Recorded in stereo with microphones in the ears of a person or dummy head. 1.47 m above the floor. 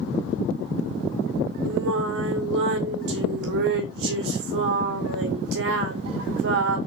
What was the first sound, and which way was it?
Singing, 60° right (ahead or behind).